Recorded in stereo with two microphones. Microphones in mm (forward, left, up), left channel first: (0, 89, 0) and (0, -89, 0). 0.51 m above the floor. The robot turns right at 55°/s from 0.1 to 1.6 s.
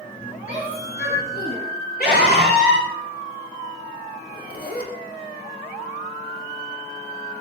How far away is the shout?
About 5.5 m.